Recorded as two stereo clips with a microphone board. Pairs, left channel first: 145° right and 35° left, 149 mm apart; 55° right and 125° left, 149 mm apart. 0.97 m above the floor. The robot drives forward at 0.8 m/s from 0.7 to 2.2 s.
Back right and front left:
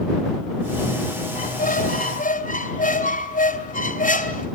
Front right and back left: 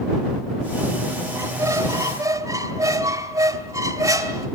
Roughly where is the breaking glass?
No breaking glass in this recording.